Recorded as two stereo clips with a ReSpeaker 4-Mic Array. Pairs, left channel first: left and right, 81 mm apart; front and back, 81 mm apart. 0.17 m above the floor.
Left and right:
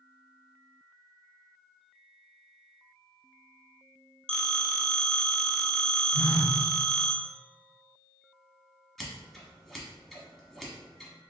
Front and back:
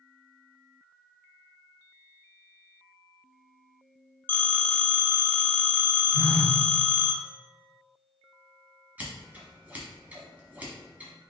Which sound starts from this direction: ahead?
A phone ringing, at 4.3 s.